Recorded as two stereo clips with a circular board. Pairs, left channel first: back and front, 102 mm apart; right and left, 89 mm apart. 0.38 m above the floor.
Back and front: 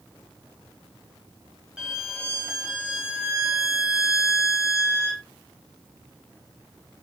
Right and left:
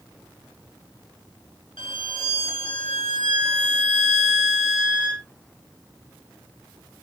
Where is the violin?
80° right, 0.6 m.